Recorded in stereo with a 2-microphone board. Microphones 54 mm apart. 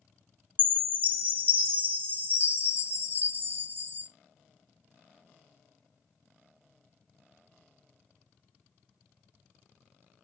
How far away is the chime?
About 0.9 m.